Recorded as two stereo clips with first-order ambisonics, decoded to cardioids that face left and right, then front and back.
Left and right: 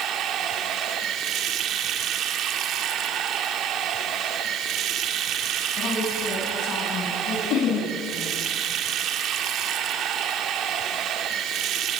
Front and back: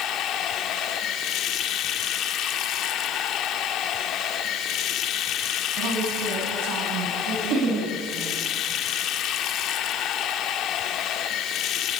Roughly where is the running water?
Ahead right.